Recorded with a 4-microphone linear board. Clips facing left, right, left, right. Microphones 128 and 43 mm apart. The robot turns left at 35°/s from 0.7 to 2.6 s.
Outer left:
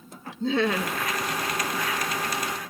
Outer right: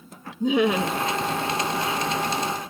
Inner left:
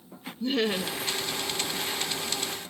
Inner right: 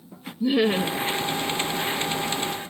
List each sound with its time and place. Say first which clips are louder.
0.4 s laughter: outer right 4 dB, inner right 6 dB; 15° right (ahead or behind), 0.9 m; by 1.1 s 25° right (ahead or behind), 0.9 m